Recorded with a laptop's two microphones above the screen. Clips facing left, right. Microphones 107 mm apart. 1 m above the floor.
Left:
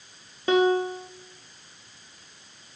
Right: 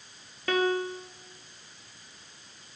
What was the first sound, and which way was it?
A piano, 20° left (ahead or behind).